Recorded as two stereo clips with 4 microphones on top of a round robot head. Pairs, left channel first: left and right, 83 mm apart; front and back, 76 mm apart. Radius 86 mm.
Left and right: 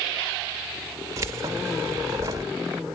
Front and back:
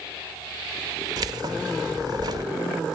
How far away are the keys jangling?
About 1.6 m.